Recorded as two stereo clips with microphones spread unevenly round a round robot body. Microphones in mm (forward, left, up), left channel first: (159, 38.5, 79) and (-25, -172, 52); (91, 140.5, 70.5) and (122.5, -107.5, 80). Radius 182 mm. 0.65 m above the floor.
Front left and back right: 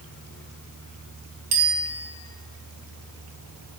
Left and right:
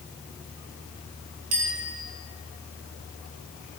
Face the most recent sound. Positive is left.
turn(degrees=-115)